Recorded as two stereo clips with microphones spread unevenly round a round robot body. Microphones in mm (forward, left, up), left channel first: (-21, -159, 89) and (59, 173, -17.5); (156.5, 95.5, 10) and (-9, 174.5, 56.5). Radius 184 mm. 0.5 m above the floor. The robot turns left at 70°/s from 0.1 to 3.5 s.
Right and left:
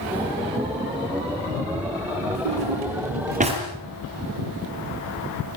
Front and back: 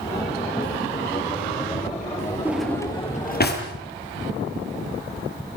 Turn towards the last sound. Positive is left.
turn(degrees=0)